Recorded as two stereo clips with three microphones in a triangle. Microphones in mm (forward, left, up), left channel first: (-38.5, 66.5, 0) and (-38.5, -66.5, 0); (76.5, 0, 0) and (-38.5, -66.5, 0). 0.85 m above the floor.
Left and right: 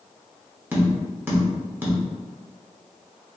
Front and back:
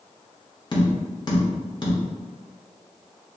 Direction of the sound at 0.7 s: 20° right.